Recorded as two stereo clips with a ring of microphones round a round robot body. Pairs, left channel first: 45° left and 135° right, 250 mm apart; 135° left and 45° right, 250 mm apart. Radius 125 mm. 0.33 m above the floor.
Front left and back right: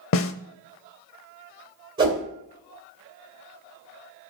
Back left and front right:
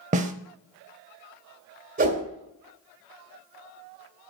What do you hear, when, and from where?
0.1 s a snare drum: 15° left, 0.6 m
2.0 s a whoosh: 75° right, 1.8 m